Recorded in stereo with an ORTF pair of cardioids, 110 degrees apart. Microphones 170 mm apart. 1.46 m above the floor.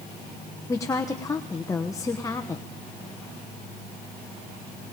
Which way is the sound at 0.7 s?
20° left.